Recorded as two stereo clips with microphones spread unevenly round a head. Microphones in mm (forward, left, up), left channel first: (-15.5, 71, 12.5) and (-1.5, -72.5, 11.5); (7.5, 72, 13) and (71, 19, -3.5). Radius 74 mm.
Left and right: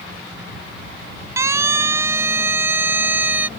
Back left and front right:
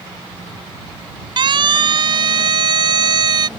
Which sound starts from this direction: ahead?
A siren, at 1.4 s.